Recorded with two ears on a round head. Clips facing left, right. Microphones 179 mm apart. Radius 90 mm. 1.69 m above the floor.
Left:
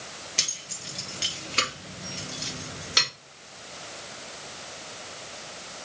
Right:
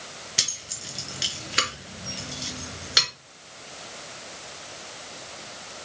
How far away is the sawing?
No sawing in this recording.